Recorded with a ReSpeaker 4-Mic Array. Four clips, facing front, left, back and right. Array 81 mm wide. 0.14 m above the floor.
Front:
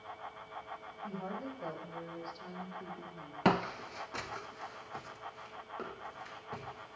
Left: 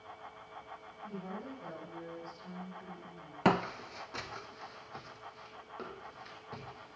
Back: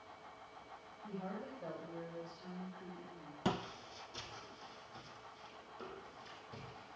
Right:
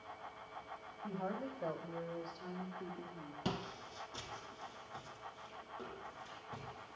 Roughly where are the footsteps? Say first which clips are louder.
Left 13 dB, front 9 dB; ahead left.